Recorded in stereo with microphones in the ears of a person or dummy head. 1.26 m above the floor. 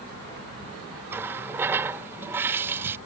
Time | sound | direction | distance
1.1 | a running tap | 10° right (ahead or behind) | ?